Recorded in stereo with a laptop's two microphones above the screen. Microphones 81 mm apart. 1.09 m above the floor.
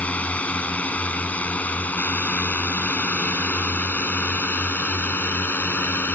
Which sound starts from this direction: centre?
A drone, at 0.0 s.